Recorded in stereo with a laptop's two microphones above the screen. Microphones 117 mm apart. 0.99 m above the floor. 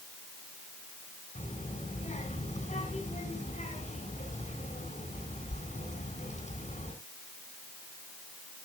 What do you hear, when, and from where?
1.4 s a child speaking: 75° left (ahead or behind), 7.5 m